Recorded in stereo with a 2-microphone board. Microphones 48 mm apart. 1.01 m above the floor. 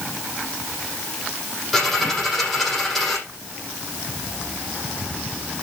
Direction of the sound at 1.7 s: 5° left (ahead or behind).